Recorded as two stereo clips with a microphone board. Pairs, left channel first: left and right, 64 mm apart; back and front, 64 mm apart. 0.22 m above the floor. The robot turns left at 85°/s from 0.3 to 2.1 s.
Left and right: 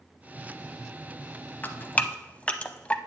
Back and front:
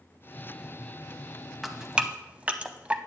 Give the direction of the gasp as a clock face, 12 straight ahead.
No gasp in this recording.